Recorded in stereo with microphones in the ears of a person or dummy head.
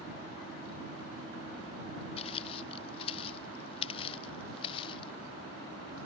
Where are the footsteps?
35° left (ahead or behind); by 5.1 s 25° left (ahead or behind).